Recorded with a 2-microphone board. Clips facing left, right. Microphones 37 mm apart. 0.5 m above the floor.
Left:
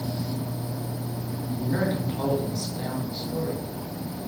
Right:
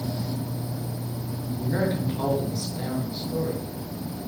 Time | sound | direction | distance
1.6 | a man speaking | 5° right (ahead or behind) | 9 m